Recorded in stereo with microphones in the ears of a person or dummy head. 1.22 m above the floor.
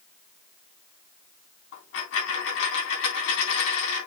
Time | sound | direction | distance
1.7 | a dropped coin | 70° left (ahead or behind) | 3.5 m